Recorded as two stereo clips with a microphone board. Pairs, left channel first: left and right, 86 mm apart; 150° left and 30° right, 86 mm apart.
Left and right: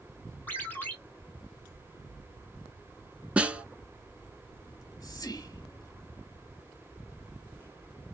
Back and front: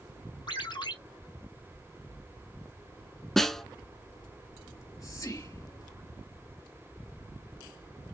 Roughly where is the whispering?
Behind left.